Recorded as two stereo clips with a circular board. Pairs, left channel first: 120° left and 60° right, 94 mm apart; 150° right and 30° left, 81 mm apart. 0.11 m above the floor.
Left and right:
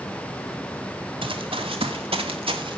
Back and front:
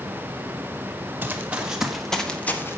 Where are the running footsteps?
40° right, 2.5 m; by 2.8 s 90° right, 1.7 m.